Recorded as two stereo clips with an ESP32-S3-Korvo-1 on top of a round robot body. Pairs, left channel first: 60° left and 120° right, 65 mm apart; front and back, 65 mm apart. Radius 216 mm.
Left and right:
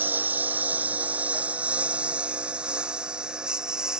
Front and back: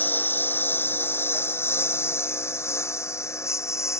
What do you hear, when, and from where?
0.0 s a lawn mower: 60° right; by 4.0 s 40° right